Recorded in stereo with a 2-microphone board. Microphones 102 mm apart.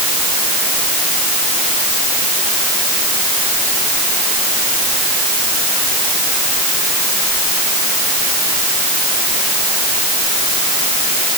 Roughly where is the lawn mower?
I don't hear a lawn mower.